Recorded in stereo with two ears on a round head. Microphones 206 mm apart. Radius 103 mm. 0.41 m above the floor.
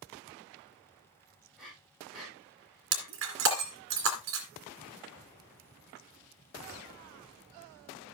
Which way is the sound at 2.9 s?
55° right (ahead or behind).